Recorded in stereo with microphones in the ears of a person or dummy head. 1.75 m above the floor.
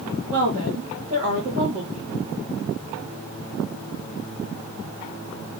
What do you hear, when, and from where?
0.3 s a woman speaking: 45° right (ahead or behind), 1.6 m